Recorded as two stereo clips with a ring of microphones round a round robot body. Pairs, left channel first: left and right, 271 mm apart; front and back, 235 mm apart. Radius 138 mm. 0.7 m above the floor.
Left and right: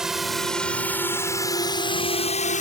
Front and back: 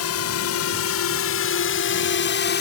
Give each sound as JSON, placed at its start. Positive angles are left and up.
{"t": 0.0, "sound": "a drone", "azimuth_deg": 0}